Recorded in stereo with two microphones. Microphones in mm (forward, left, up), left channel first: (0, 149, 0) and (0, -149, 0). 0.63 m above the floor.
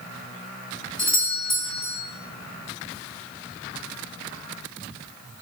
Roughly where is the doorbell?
Left.